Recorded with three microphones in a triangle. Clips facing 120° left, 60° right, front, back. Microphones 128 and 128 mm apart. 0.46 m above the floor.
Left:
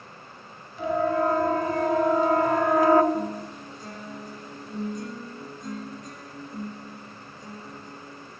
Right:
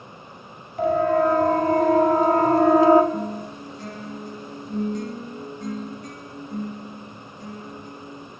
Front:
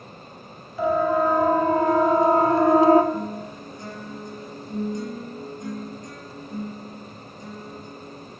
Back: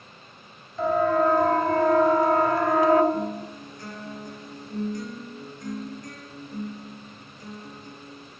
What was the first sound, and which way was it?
A siren, 80° right.